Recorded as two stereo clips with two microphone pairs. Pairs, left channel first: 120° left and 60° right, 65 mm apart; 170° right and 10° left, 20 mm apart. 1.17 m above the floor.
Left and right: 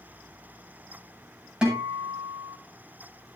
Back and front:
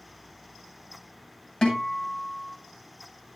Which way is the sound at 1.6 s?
140° right.